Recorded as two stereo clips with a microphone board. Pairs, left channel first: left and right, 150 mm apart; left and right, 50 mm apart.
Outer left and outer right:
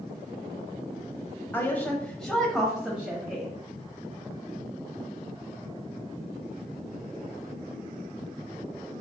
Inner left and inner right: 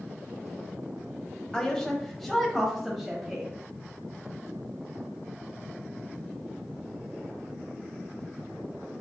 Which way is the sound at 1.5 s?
15° left (ahead or behind).